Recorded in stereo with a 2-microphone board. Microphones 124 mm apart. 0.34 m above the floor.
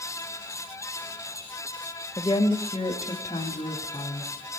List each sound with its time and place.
2.2 s a woman speaking: 30° left (ahead or behind), 0.9 m; by 4.3 s 35° left (ahead or behind), 2.5 m